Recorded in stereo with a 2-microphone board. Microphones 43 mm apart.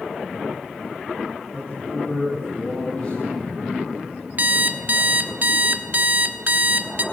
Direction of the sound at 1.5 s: 30° left (ahead or behind).